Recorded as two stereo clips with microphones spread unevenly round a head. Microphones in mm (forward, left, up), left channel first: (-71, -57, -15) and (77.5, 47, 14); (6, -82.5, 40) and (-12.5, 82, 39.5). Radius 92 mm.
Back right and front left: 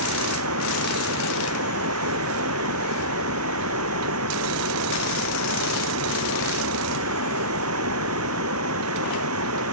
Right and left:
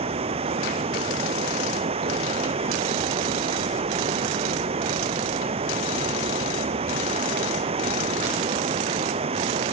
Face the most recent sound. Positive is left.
turn(degrees=40)